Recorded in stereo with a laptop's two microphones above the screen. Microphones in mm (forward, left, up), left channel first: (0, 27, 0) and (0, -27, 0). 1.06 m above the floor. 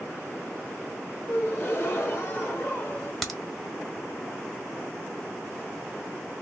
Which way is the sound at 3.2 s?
5° left (ahead or behind).